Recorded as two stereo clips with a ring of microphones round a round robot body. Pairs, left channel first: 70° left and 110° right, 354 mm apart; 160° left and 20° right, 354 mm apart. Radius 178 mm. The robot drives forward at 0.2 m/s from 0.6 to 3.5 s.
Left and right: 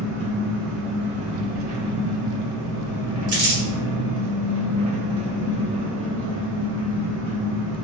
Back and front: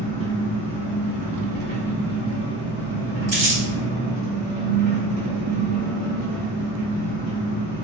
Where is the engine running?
145° right, 1.1 m; by 7.8 s 155° right, 1.6 m.